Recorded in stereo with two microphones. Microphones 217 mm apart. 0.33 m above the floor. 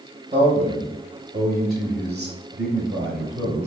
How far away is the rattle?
No rattle in this recording.